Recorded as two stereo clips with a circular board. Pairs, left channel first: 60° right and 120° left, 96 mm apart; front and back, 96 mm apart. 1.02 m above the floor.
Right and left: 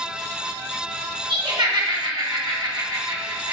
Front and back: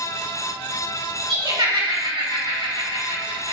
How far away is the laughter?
About 3.5 m.